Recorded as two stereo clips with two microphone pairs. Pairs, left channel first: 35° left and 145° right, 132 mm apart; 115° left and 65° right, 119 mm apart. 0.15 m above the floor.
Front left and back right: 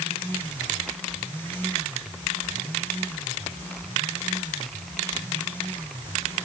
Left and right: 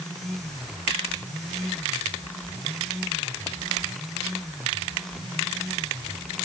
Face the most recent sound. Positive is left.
No sound to turn to.